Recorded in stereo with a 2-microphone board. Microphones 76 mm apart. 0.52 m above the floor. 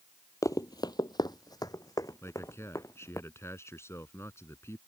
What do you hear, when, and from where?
0.4 s running footsteps: 45° left (ahead or behind); by 3.2 s 40° left (ahead or behind)
2.2 s a man speaking: 35° left (ahead or behind)